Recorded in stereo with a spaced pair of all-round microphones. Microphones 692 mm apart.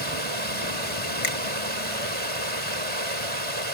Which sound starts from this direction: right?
Running water, at 0.0 s.